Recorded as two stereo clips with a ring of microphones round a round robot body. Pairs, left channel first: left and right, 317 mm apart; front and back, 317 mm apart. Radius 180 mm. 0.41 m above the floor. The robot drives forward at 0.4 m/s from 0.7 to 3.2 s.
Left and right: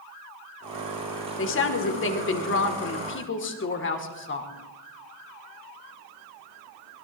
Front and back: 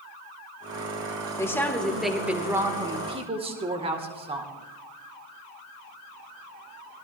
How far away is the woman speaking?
About 1.7 m.